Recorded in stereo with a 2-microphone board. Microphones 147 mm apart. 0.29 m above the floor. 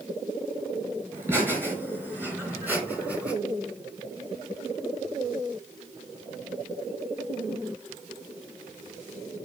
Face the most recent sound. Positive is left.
turn(degrees=-10)  # may be behind; listen again after turning